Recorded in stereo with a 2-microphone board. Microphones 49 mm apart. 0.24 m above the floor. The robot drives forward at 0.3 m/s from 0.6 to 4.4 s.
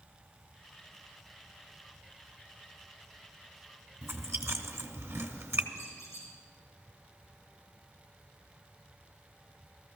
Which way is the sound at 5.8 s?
65° left (ahead or behind).